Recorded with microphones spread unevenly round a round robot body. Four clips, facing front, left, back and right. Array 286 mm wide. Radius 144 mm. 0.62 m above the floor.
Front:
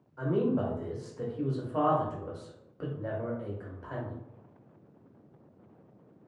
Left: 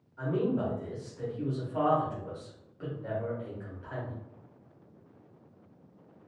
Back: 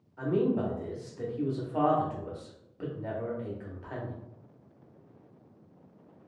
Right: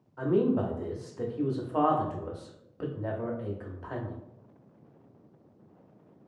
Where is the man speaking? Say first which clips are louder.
Right 4 dB, back 1 dB; 80° right, 0.8 m.